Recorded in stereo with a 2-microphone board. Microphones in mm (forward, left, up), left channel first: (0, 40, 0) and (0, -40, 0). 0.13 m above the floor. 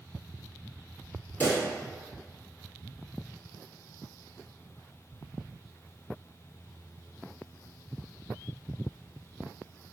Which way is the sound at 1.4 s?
25° left (ahead or behind).